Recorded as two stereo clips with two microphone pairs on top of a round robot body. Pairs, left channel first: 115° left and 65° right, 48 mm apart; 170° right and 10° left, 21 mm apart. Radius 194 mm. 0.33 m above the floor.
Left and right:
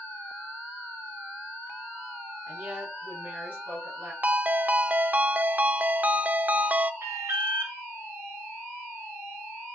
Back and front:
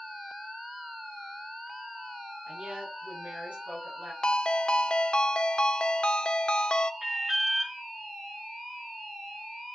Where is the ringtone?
120° right, 0.6 m.